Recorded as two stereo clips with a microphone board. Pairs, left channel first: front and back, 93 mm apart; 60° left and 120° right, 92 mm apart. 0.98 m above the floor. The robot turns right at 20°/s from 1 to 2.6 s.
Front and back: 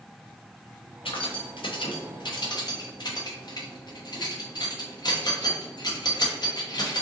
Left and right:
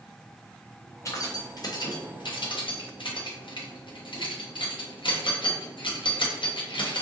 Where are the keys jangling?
5° left, 0.7 m; by 7.0 s 35° left, 0.7 m.